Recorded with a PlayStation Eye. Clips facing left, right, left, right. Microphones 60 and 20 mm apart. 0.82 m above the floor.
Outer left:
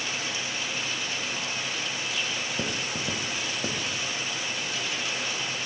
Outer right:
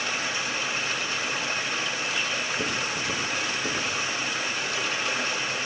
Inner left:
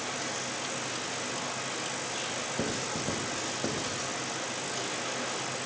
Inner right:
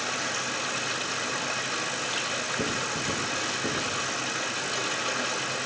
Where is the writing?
55° left (ahead or behind), 1.7 m.